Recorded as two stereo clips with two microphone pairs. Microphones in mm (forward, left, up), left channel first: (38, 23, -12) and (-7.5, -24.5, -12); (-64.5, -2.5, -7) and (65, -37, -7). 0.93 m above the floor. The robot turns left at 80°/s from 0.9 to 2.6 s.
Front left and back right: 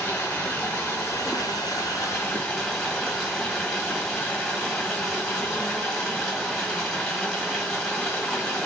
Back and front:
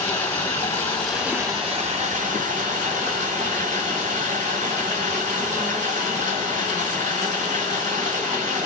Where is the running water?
100° left, 1.5 m; by 8.7 s 35° right, 1.5 m.